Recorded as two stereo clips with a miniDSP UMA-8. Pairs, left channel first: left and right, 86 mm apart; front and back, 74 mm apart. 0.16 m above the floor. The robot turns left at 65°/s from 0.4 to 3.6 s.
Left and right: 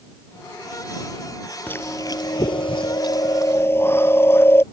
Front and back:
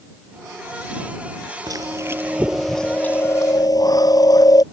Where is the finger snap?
No finger snap in this recording.